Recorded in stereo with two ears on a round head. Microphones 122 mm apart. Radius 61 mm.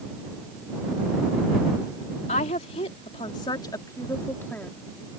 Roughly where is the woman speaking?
Left.